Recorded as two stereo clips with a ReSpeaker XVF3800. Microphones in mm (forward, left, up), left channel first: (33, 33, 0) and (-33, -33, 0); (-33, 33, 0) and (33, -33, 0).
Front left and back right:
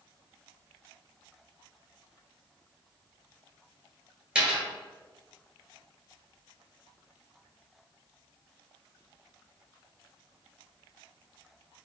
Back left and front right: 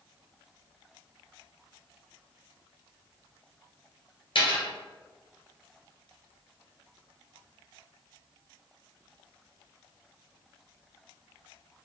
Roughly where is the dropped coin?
Behind left.